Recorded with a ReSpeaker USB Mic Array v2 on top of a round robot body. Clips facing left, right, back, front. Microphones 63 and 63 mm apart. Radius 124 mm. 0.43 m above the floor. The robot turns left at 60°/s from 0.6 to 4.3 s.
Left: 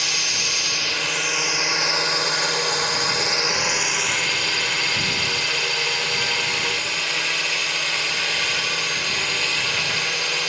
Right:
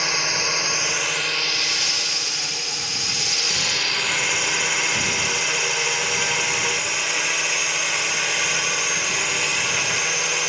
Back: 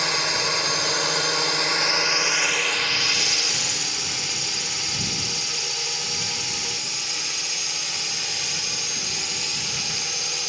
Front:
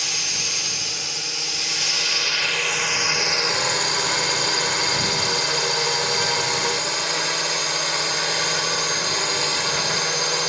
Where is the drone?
145° right; by 10.5 s 10° right.